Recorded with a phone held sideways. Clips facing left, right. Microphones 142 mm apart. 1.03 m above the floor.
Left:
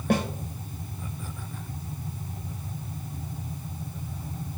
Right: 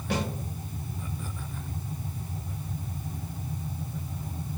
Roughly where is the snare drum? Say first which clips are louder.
Left 5 dB; left.